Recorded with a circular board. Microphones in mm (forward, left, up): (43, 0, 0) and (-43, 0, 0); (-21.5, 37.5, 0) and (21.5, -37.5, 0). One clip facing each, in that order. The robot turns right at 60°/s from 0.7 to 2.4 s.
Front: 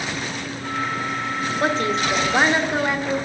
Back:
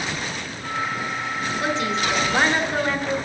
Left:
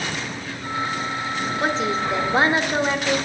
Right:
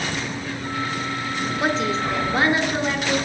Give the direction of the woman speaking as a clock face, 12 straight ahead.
11 o'clock.